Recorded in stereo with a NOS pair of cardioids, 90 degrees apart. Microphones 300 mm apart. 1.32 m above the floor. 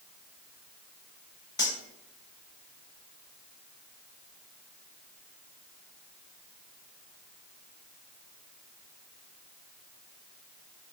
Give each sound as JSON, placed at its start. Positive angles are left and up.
{"t": 1.6, "sound": "cutlery clinking", "azimuth_deg": 15, "distance_m": 1.4}